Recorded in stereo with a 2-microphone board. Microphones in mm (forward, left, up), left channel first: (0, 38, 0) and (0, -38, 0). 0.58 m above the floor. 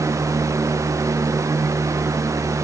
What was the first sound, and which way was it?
Only background noise.